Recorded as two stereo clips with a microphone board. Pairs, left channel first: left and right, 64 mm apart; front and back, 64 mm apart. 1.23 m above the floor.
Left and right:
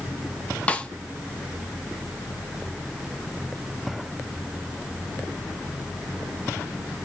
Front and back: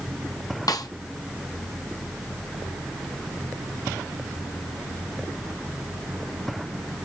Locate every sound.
0.7 s a snare drum: 20° left, 0.9 m